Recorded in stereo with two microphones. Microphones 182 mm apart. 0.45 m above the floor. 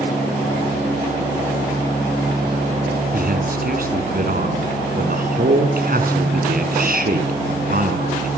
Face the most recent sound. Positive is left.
turn(degrees=-55)  # may be behind; listen again after turning